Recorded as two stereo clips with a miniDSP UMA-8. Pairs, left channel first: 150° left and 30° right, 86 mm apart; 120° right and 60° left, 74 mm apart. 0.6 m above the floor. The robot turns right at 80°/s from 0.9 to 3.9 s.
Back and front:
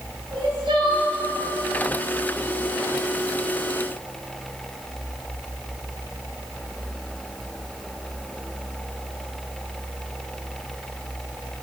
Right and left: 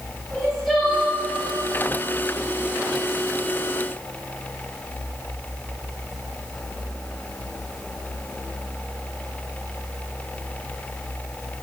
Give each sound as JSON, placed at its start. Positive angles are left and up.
{"t": 0.3, "sound": "crying", "azimuth_deg": -30, "distance_m": 2.5}